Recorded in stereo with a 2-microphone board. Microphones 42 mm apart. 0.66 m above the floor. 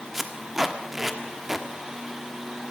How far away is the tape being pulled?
About 1.3 m.